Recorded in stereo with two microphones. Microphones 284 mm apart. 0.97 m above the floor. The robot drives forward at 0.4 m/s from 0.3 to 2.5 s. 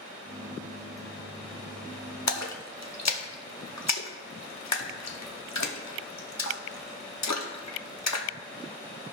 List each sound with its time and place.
2.3 s a splash: 70° left (ahead or behind), 0.9 m